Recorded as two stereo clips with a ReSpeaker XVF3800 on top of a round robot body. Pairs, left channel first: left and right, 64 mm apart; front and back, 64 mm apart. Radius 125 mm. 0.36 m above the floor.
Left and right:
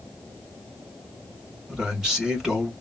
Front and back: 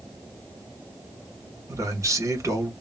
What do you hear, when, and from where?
1.7 s a man speaking: 170° right, 1.6 m